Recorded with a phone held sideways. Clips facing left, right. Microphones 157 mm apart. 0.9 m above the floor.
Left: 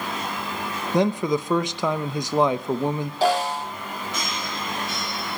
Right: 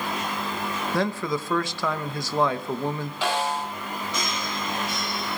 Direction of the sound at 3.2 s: 40° left (ahead or behind).